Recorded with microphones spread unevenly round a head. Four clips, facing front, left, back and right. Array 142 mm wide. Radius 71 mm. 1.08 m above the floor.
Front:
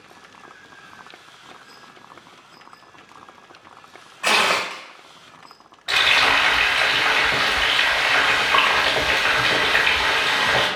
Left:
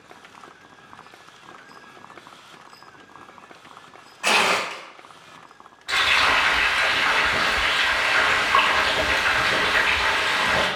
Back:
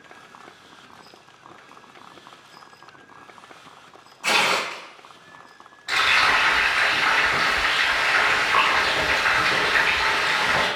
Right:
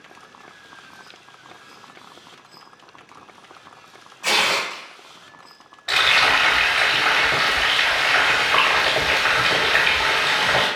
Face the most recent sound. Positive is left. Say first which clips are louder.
# right 2 dB, front 1 dB
turn(degrees=-60)